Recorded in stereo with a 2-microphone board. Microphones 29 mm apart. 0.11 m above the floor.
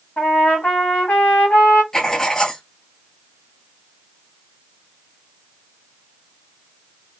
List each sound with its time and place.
0.2 s a trumpet: 70° left (ahead or behind), 1.2 m
1.9 s writing: 15° left (ahead or behind), 0.8 m